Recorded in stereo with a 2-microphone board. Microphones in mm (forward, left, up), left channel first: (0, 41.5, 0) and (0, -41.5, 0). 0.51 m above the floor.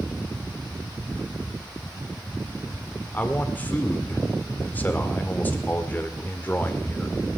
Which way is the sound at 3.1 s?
20° left (ahead or behind).